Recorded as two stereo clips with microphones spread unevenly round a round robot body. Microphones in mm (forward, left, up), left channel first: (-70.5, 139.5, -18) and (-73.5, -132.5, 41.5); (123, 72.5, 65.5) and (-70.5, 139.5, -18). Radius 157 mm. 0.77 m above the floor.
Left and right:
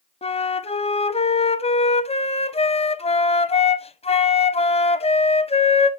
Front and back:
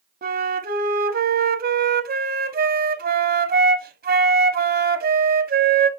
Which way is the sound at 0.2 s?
150° left.